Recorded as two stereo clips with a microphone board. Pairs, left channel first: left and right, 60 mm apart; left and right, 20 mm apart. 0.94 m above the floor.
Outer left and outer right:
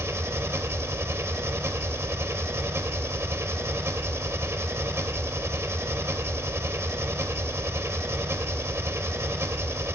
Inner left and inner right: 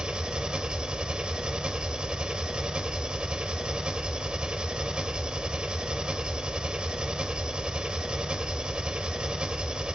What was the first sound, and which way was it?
An engine running, 50° right (ahead or behind).